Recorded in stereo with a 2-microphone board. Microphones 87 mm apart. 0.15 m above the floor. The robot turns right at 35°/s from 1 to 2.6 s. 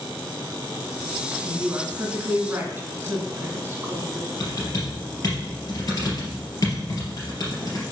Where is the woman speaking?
25° right (ahead or behind), 1.4 m.